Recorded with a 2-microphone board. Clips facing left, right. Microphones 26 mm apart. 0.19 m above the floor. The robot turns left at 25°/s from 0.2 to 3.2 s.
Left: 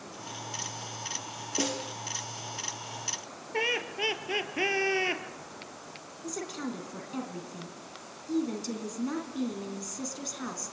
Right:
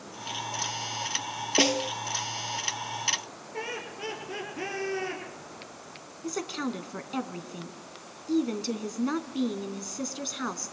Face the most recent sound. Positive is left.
turn(degrees=-35)  # may be behind; listen again after turning